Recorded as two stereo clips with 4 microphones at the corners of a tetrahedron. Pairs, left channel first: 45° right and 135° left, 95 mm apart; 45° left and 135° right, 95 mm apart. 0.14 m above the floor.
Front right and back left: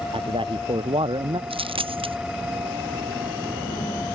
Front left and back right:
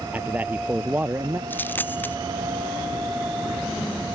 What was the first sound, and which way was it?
A man speaking, 155° left.